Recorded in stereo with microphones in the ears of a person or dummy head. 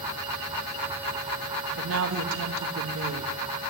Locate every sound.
1.8 s a woman speaking: 80° right, 1.4 m